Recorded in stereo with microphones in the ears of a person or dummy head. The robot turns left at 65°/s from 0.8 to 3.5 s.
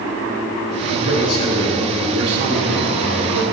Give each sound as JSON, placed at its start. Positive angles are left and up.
{"t": 0.8, "sound": "a man speaking", "azimuth_deg": 70, "distance_m": 3.0}